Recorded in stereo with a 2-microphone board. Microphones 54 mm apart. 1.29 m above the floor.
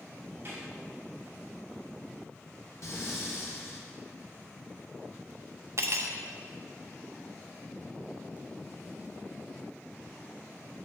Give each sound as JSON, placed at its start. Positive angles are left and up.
{"t": 0.5, "sound": "a snare drum", "side_deg": -40, "distance_m": 3.0}
{"t": 2.8, "sound": "breathing", "side_deg": 60, "distance_m": 1.2}
{"t": 5.8, "sound": "cutlery clinking", "side_deg": -55, "distance_m": 0.6}